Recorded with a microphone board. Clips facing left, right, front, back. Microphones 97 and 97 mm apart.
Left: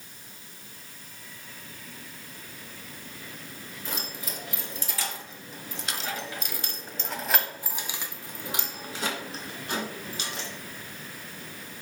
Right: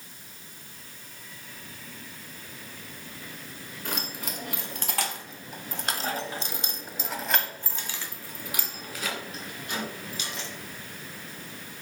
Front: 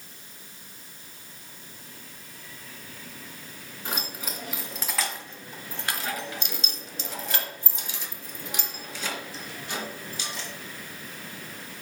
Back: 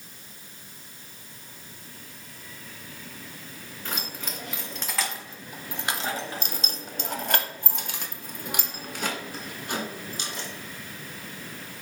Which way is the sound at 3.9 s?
75° right.